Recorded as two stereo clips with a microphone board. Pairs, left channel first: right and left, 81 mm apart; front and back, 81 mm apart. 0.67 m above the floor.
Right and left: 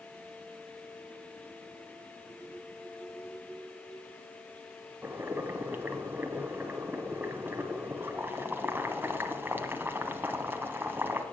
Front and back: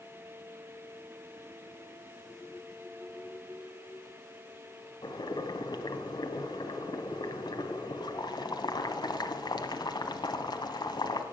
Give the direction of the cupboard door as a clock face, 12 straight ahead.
No cupboard door in this recording.